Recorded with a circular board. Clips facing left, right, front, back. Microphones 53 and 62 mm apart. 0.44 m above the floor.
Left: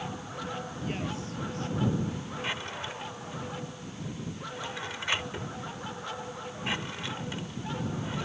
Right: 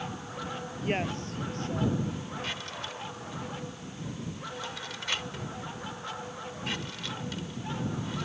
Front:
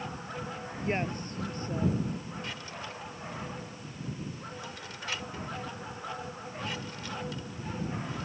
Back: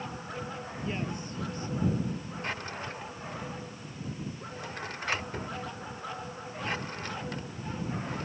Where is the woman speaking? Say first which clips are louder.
Right 7 dB, front 4 dB; 45° right; by 2.0 s 50° right.